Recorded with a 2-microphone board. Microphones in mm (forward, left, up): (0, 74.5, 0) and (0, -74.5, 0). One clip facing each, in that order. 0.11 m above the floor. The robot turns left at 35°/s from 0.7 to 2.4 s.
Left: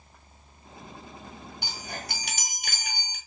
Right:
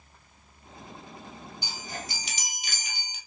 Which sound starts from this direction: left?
A chime, at 1.6 s.